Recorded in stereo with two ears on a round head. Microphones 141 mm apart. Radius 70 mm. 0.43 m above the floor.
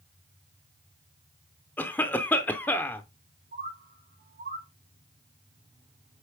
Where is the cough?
10° left (ahead or behind), 0.7 m.